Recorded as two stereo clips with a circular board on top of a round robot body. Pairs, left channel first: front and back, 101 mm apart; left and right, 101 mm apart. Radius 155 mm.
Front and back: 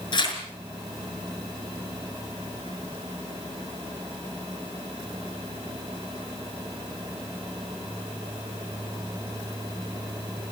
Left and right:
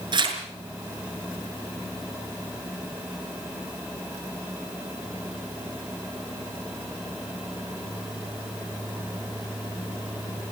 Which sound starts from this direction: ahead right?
Tearing paper, at 0.1 s.